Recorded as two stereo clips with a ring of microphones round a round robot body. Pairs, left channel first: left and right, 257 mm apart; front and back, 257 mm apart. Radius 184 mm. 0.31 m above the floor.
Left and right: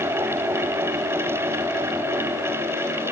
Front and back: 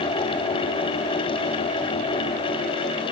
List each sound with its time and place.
Only background noise.